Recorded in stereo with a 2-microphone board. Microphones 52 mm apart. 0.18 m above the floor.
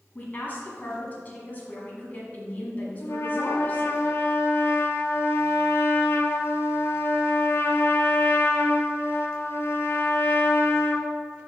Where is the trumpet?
50° left (ahead or behind), 0.8 m.